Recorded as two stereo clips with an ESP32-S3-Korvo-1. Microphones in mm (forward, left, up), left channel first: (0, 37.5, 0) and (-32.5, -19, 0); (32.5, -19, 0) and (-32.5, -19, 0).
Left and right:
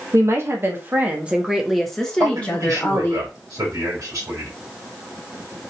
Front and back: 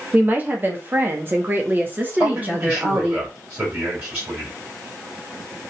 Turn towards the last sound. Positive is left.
turn(degrees=-125)